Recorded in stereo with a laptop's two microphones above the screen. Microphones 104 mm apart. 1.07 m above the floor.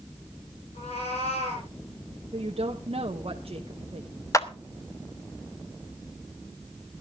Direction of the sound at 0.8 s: 80° left.